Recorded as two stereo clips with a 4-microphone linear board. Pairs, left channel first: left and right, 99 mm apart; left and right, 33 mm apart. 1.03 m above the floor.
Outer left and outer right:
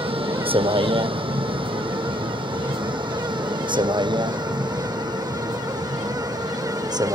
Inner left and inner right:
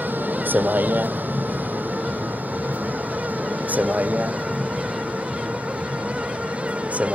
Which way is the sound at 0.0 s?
70° right (ahead or behind).